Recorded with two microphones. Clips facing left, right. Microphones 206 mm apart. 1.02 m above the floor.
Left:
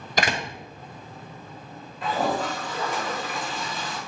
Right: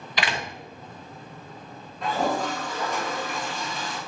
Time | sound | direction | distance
0.2 | a door slam | 45° left (ahead or behind) | 0.9 m
2.0 | a toilet flushing | centre (ahead or behind) | 2.5 m